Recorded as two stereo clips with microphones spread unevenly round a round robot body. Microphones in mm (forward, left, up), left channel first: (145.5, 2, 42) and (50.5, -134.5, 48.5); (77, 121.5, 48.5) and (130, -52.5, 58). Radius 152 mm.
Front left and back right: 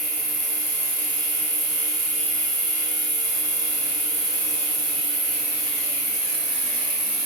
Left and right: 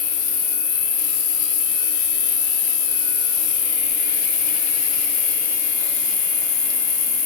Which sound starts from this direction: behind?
An insect, at 0.0 s.